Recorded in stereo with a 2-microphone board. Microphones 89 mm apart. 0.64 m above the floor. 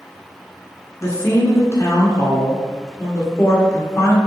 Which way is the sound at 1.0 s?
35° left (ahead or behind).